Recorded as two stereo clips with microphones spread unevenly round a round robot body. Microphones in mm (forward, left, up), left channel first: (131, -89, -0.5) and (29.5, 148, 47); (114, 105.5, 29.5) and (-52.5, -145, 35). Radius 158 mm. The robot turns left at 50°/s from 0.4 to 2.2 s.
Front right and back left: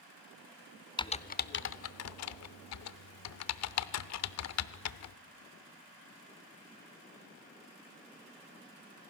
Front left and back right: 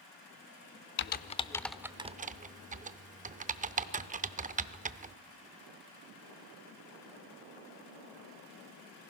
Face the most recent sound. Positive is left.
turn(degrees=-55)